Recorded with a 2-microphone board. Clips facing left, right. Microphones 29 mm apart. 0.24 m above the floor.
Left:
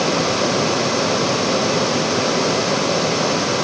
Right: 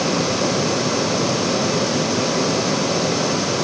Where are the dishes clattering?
I don't hear dishes clattering.